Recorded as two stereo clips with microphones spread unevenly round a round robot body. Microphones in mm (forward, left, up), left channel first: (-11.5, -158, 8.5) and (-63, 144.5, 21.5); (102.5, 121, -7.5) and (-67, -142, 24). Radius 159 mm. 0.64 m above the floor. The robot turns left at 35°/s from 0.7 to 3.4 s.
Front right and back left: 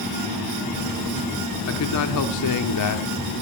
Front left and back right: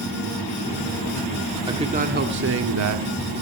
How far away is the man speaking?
About 1.8 m.